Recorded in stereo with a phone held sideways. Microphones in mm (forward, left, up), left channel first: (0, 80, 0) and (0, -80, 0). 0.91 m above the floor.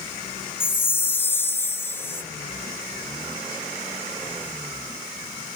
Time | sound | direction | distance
0.6 | a chime | 15° left (ahead or behind) | ?